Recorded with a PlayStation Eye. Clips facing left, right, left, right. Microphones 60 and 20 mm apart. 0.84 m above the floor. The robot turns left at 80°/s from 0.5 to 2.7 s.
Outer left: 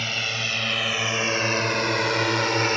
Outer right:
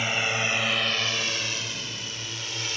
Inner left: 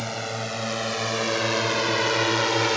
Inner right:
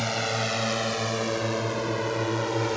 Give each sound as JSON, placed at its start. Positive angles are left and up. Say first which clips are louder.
{"t": 0.0, "sound": "a drone", "louder": "outer right 2 dB, inner right 3 dB", "side_deg": -15}